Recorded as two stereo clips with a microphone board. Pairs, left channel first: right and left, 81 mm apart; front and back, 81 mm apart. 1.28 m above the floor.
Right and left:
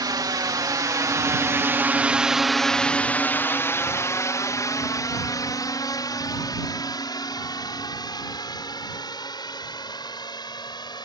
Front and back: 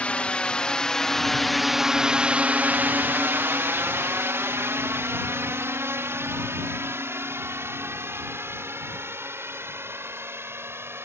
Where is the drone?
70° left; by 11.1 s 120° right.